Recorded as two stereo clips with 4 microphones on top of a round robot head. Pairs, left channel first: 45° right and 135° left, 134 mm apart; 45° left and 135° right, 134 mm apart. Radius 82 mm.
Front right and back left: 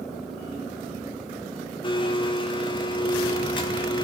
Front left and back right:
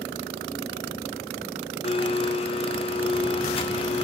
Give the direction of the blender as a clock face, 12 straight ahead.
12 o'clock.